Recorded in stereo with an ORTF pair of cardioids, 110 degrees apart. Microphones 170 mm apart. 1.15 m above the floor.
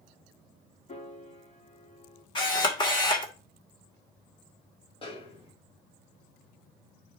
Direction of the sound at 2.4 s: 25° left.